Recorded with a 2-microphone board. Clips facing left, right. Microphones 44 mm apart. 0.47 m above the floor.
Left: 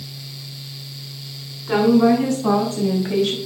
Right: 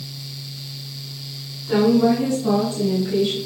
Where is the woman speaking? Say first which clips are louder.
Left 2 dB; 50° left (ahead or behind), 4.5 m; by 3.4 s 65° left (ahead or behind), 2.5 m.